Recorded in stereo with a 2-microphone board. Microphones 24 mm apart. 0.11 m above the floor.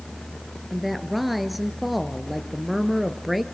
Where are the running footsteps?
I don't hear running footsteps.